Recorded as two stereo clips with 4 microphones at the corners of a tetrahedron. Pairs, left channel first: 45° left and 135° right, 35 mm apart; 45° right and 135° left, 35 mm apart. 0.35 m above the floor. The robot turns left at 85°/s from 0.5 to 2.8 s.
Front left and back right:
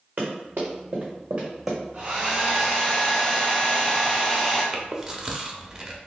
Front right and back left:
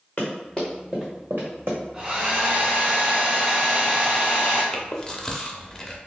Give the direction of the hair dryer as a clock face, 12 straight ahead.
6 o'clock.